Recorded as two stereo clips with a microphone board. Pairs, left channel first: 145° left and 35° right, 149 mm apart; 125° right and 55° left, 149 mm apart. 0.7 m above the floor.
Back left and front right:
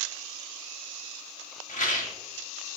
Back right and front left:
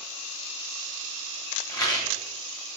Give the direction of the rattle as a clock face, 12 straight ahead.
6 o'clock.